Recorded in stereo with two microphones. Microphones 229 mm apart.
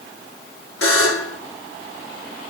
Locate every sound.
0.8 s a buzzer: 75° left (ahead or behind), 3 m